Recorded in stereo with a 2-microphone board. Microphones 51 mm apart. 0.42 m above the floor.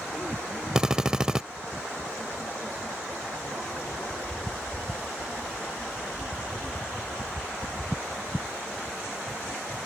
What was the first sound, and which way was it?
A drill, 15° right (ahead or behind).